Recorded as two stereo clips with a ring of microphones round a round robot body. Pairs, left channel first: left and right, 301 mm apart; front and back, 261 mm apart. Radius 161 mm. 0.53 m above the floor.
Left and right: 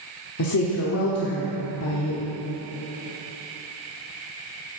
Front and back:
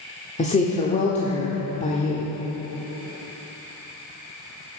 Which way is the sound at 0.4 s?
60° left.